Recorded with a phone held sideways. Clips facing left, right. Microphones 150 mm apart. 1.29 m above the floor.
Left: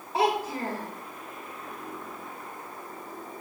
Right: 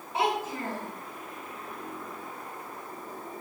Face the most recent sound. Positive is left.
turn(degrees=35)  # may be behind; listen again after turning